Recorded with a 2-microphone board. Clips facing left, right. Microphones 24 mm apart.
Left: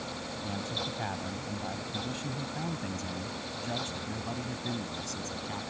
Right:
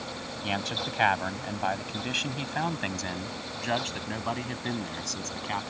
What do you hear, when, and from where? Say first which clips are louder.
0.4 s a man speaking: right 5 dB; 80° right; by 5.7 s 45° right (ahead or behind)